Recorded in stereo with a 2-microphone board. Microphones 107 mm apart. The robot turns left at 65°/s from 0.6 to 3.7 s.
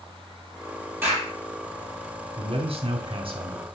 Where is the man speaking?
55° right, 2 m; by 3.6 s 140° right, 2 m.